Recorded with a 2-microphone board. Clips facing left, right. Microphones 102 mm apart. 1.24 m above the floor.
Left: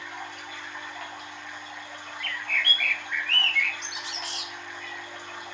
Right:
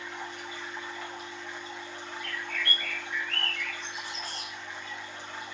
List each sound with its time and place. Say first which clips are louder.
0.0 s running water: even; 75° left (ahead or behind), 3 m
2.2 s a bird: left 4 dB; 80° left, 0.8 m